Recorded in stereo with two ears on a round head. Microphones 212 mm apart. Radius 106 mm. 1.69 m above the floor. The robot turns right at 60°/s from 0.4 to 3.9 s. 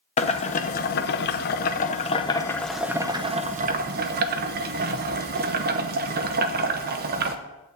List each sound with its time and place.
0.2 s boiling: 40° left, 0.8 m; by 7.3 s 110° right, 0.8 m